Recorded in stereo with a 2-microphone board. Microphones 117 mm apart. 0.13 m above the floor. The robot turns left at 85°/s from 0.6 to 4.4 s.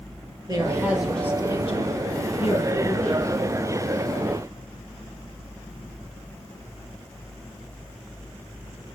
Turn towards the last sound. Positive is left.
turn(degrees=-105)